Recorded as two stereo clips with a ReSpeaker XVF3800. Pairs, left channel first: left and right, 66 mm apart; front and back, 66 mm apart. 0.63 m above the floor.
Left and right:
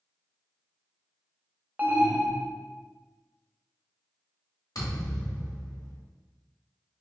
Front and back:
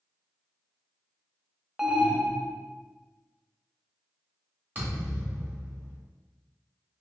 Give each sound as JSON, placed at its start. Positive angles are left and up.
{"t": 1.8, "sound": "an alarm", "azimuth_deg": -105, "distance_m": 0.5}
{"t": 4.8, "sound": "a thud", "azimuth_deg": 120, "distance_m": 1.3}